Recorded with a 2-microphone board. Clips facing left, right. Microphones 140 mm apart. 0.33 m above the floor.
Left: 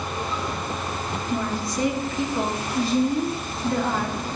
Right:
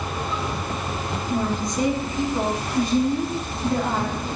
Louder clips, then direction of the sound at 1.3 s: Right 3 dB; 20° right (ahead or behind).